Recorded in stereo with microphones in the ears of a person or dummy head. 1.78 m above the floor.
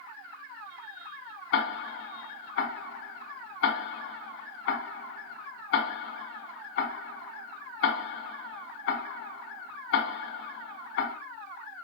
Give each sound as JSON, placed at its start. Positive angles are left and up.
{"t": 1.5, "sound": "ticking", "side_deg": 60, "distance_m": 0.9}